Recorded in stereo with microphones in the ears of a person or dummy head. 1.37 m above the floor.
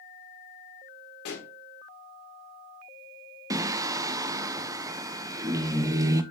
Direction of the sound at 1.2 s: 55° left (ahead or behind).